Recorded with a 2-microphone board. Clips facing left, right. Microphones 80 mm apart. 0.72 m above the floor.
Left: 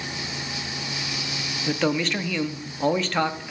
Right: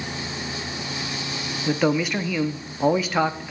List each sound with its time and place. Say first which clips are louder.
1.7 s a man speaking: right 2 dB; 10° right (ahead or behind), 0.8 m